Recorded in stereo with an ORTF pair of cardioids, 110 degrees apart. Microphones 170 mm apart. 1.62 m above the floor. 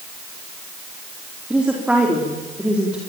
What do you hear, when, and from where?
1.5 s a woman speaking: 5° right, 4 m